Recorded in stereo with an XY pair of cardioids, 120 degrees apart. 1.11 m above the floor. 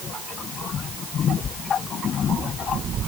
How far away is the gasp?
I don't hear a gasp.